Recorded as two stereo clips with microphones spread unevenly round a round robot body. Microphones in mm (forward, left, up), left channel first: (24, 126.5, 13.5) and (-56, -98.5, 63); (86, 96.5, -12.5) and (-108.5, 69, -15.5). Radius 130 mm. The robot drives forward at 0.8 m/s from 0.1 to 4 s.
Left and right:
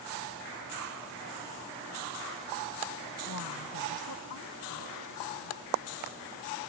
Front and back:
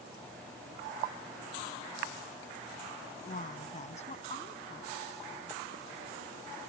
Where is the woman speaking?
55° left; by 5.6 s 60° left.